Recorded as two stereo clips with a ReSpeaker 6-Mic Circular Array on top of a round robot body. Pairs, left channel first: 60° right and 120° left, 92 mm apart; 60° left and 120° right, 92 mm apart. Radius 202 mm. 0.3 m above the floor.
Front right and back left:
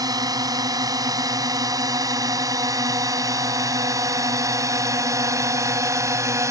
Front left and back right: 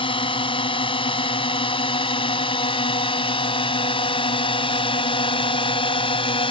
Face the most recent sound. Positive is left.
turn(degrees=65)